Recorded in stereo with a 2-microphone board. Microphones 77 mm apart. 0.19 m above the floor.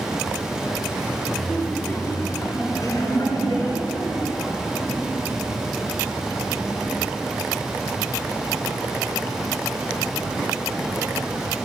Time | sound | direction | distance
1.4 | laughter | centre (ahead or behind) | 1.4 m